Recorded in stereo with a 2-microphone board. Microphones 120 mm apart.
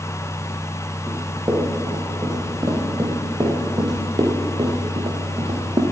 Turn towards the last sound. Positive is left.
turn(degrees=-50)  # may be behind; listen again after turning